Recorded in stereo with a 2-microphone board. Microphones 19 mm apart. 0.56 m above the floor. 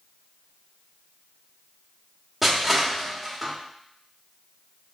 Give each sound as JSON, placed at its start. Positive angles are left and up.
{"t": 2.4, "sound": "crushing", "side_deg": -15, "distance_m": 1.3}